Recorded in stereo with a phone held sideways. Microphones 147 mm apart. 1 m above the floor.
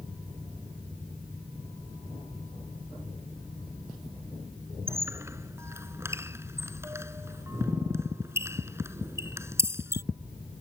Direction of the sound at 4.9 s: 20° right (ahead or behind).